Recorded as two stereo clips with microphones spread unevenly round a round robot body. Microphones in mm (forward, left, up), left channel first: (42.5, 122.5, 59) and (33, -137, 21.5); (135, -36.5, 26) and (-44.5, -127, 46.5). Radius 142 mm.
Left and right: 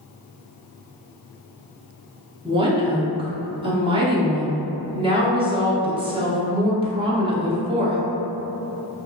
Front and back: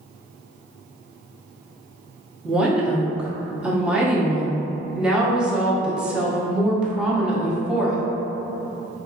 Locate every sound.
2.5 s a woman speaking: 60° right, 0.8 m